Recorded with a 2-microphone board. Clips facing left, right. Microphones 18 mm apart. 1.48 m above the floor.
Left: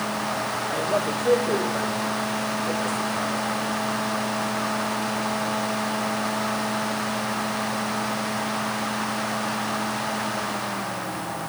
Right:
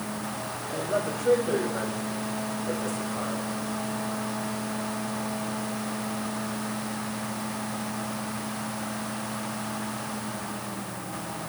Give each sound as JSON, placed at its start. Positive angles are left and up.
{"t": 0.7, "sound": "a man speaking", "side_deg": 30, "distance_m": 4.0}